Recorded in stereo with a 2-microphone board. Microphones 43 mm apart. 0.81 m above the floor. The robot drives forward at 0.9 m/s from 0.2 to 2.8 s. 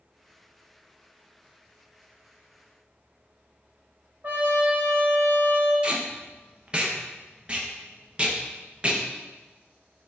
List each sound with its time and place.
4.2 s a trumpet: 50° right (ahead or behind), 1.3 m
5.8 s tape being pulled: 25° right (ahead or behind), 0.7 m